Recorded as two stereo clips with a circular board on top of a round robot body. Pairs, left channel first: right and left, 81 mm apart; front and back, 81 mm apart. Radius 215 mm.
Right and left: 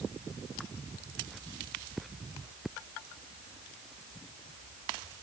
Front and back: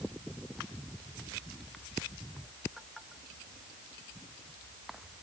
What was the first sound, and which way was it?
Only background noise.